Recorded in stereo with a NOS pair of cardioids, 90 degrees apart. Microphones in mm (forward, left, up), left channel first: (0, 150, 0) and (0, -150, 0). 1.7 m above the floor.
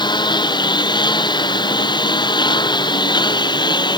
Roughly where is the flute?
I don't hear a flute.